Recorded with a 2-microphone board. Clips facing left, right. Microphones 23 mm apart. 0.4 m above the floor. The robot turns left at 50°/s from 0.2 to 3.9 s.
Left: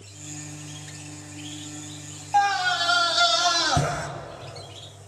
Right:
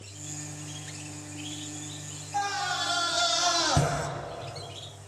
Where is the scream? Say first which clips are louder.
Left 8 dB; 90° left, 2.5 m; by 4.1 s 15° left, 2.5 m.